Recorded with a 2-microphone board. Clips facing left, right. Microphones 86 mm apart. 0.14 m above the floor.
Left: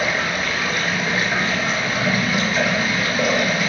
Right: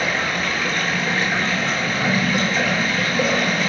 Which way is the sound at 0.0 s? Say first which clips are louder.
Even; 10° left (ahead or behind).